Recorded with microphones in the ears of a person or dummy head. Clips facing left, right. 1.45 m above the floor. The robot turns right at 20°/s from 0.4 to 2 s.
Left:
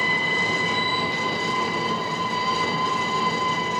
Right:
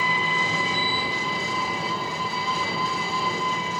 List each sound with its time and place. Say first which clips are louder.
0.0 s an engine running: even; 40° left, 2 m; by 3.8 s 70° left, 2 m